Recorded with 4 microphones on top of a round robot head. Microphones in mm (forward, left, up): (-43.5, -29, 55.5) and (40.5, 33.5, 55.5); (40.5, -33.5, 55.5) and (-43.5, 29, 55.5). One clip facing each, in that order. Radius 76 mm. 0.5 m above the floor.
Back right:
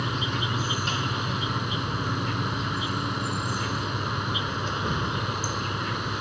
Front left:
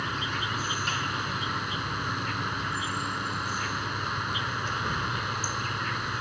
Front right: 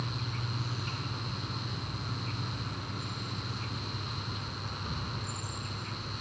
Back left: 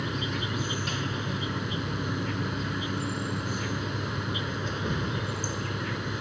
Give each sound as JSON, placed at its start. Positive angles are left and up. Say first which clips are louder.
{"t": 0.0, "sound": "an insect", "louder": "back right 3 dB, back left 7 dB", "azimuth_deg": 145}